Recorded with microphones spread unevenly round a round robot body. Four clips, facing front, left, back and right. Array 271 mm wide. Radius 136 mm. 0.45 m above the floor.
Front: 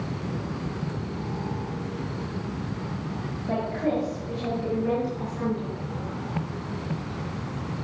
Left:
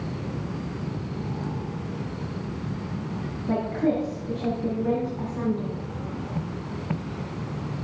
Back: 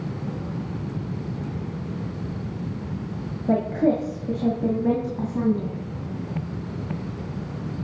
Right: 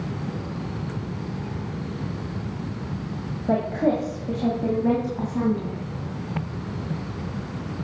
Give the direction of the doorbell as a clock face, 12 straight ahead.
I don't hear a doorbell.